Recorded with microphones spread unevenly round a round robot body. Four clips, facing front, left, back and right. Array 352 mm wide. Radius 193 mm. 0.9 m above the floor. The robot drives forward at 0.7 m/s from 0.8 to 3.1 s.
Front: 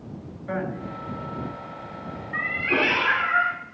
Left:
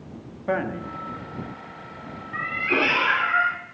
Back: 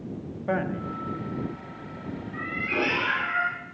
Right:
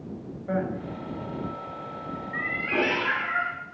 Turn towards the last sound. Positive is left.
turn(degrees=60)